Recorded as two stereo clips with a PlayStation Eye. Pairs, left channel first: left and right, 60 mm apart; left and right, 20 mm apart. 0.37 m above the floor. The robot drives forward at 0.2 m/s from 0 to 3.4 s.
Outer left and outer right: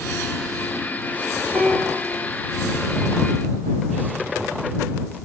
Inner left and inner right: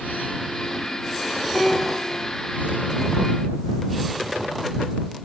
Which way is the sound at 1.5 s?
35° right (ahead or behind).